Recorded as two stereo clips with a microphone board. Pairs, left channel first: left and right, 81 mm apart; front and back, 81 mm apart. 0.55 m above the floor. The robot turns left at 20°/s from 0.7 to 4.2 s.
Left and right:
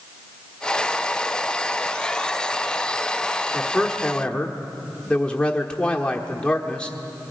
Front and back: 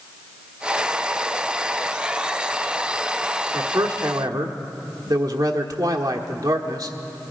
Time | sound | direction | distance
3.5 | a man speaking | straight behind | 1.1 m